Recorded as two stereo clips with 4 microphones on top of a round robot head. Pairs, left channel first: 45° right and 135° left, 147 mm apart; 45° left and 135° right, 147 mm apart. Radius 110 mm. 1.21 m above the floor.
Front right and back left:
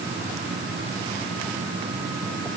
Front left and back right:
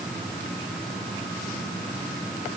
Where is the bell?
I don't hear a bell.